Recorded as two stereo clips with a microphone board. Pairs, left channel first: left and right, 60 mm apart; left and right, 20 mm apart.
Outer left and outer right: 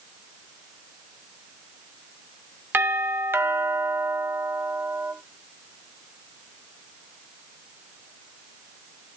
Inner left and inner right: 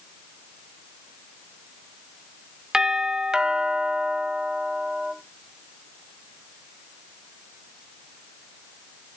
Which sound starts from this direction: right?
A doorbell, at 2.7 s.